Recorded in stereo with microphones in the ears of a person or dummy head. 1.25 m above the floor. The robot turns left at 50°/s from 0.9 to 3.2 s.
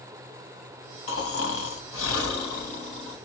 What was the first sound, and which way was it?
Snoring, 130° left.